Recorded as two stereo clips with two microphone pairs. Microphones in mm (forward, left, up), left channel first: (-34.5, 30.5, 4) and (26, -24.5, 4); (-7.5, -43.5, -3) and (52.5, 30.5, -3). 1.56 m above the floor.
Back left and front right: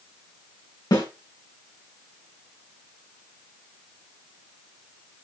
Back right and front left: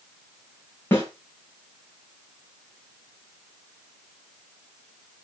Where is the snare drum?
165° left, 4.5 m.